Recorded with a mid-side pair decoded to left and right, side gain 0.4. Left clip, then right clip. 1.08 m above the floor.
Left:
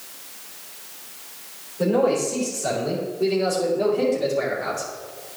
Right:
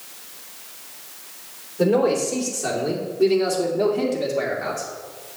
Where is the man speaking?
70° right, 3.5 m; by 4.9 s 20° right, 2.5 m.